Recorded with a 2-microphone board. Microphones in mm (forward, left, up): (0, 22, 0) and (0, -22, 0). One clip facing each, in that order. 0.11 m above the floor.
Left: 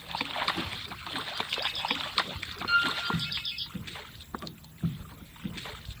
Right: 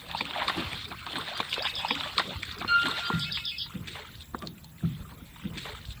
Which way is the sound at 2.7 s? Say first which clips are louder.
Right 1 dB; 10° right (ahead or behind).